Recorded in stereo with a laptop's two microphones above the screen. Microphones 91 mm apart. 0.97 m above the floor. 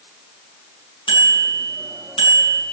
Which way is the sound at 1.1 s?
90° left.